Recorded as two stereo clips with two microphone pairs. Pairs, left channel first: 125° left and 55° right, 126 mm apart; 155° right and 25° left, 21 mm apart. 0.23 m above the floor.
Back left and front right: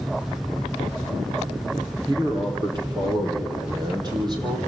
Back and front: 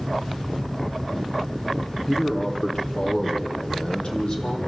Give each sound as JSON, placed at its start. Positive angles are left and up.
{"t": 2.1, "sound": "a man speaking", "azimuth_deg": -105, "distance_m": 5.5}